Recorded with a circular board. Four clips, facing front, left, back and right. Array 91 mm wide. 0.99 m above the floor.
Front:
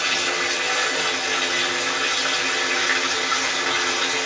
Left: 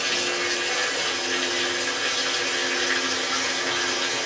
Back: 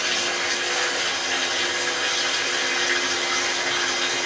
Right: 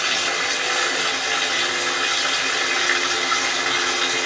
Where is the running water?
75° right, 1.8 m.